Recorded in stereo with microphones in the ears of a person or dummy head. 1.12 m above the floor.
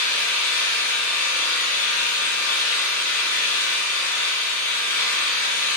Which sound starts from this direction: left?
An engine running, at 0.0 s.